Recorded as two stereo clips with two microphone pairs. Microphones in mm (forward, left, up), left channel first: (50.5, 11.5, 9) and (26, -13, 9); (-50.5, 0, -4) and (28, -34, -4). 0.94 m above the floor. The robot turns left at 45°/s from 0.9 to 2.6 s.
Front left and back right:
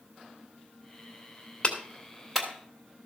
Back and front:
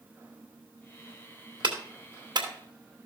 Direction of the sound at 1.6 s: 20° right.